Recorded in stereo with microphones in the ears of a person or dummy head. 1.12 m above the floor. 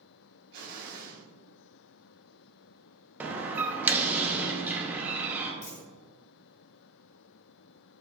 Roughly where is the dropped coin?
Left.